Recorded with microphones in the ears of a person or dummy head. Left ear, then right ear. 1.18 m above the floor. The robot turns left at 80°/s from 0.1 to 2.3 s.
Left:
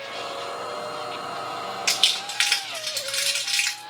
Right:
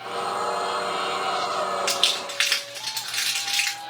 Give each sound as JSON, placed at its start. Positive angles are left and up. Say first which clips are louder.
{"t": 1.9, "sound": "crumpling", "louder": "left 1 dB", "side_deg": -30, "distance_m": 1.3}